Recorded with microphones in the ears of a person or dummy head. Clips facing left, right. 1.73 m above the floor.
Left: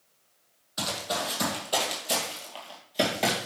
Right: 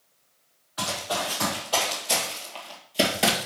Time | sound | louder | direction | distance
0.8 | running footsteps | right 2 dB | 30° left (ahead or behind) | 3 m